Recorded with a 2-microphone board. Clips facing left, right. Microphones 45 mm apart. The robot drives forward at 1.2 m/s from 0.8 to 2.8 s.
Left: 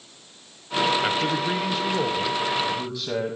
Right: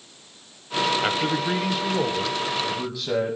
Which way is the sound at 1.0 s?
5° right (ahead or behind).